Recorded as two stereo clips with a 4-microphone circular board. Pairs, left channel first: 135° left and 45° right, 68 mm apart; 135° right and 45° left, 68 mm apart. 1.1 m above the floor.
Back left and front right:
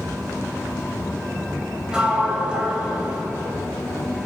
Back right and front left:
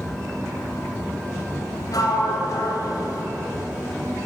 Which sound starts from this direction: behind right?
A sliding door, at 1.9 s.